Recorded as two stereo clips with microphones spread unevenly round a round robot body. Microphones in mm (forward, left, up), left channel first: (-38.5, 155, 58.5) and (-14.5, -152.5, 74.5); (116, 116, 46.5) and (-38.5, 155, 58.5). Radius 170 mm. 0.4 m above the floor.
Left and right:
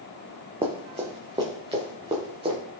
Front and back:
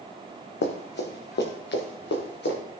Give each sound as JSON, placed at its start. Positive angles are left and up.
{"t": 0.6, "sound": "running footsteps", "azimuth_deg": -10, "distance_m": 1.6}